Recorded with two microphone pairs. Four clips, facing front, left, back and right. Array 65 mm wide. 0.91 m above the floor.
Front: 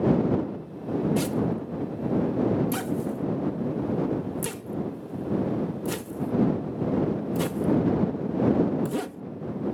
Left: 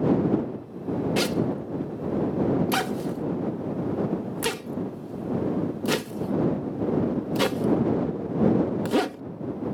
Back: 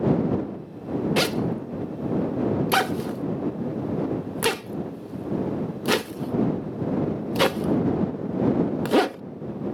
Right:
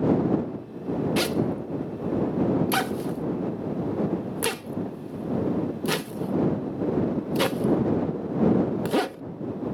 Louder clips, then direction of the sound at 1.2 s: Even, back 2 dB; 175° right.